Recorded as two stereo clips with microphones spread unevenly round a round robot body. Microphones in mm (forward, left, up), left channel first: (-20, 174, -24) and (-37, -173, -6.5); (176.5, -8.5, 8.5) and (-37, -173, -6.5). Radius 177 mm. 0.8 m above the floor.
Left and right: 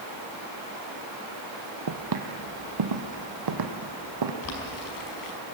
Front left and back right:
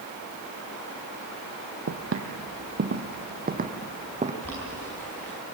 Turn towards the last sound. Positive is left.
turn(degrees=120)